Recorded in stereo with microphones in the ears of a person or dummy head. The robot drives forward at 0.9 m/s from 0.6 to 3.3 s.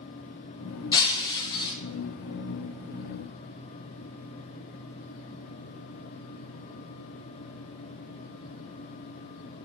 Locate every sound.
0.9 s breaking glass: 20° left (ahead or behind), 1.8 m; by 1.7 s 25° left (ahead or behind), 1.3 m